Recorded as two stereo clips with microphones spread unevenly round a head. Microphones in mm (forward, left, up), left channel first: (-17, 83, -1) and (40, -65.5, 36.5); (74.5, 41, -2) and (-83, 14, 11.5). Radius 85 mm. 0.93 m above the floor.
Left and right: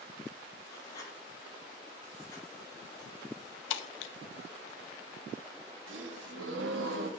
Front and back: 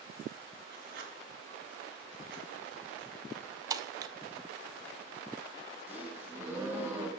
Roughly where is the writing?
Behind.